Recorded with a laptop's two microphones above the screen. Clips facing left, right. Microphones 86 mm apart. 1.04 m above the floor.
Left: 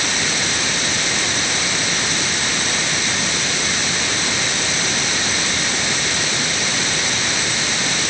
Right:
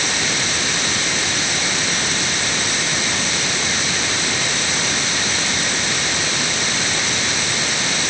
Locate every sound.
Only background noise.